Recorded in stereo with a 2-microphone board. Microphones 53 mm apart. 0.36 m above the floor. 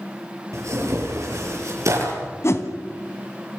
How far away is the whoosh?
About 2.5 m.